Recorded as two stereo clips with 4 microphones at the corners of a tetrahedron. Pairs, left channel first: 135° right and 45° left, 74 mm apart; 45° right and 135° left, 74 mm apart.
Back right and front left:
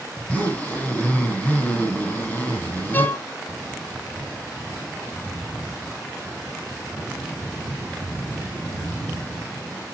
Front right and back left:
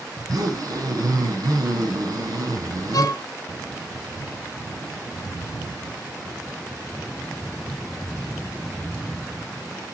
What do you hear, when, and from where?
0.1 s a zipper: 155° left, 3.5 m
2.9 s a violin: 75° right, 0.7 m